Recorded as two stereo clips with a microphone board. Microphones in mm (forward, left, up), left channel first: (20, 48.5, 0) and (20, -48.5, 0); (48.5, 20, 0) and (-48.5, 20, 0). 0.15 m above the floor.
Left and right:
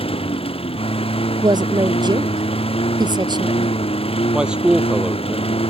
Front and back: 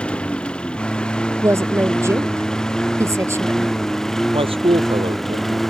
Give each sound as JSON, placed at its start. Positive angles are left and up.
{"t": 0.0, "sound": "a lawn mower", "azimuth_deg": 80}
{"t": 1.4, "sound": "a woman speaking", "azimuth_deg": -120}
{"t": 4.3, "sound": "a man speaking", "azimuth_deg": -170}